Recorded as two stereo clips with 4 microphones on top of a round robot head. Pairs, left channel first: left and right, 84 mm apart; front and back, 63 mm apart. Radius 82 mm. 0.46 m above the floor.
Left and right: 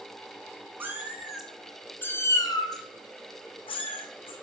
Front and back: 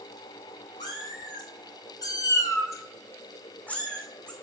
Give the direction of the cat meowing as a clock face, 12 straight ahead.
1 o'clock.